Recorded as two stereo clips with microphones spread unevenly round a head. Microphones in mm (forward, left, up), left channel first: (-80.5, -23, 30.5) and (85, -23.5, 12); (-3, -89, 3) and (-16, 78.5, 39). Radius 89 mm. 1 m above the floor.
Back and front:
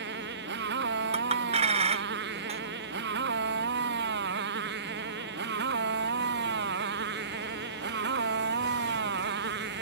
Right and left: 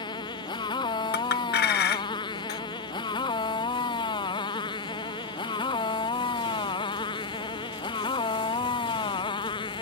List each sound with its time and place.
0.0 s a motorcycle: 20° right
1.1 s a clink: 55° right